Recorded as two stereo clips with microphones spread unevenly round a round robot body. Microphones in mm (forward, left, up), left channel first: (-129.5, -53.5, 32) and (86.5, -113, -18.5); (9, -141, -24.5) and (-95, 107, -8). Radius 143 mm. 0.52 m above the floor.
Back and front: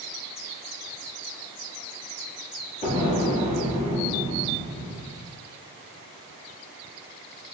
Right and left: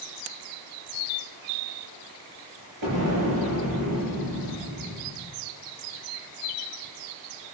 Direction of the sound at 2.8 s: 100° left.